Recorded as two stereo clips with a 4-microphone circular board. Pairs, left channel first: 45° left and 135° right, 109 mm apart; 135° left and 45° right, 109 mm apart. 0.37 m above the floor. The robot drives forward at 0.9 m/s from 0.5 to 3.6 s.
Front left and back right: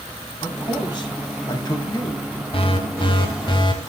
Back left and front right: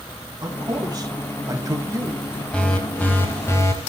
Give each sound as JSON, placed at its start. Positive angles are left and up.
{"t": 0.4, "sound": "a man speaking", "azimuth_deg": 5, "distance_m": 3.0}
{"t": 2.5, "sound": "an alarm", "azimuth_deg": 55, "distance_m": 3.0}